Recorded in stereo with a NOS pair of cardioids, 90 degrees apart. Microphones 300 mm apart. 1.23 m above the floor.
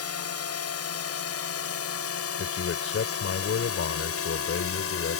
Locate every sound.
0.0 s a drone: 55° left; by 5.2 s 50° left
2.4 s a man speaking: 45° left